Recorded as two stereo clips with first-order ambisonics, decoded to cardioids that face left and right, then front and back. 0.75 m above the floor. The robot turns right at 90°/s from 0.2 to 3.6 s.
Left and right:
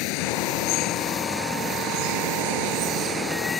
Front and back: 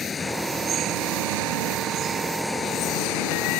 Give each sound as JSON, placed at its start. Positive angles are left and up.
{"t": 0.0, "sound": "running water", "azimuth_deg": 70}